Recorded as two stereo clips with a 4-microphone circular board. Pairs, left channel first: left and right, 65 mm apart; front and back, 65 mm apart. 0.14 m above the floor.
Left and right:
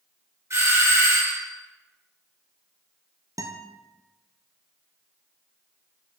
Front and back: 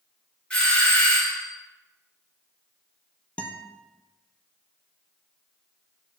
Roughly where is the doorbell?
Right.